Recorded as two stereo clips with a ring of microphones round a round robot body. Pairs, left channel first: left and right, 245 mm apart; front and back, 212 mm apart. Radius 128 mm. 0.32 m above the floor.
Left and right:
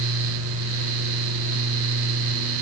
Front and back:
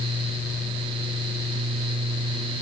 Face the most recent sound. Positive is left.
No sound to turn to.